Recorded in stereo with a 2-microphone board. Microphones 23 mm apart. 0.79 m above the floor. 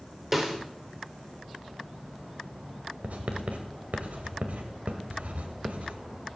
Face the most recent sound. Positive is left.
turn(degrees=-85)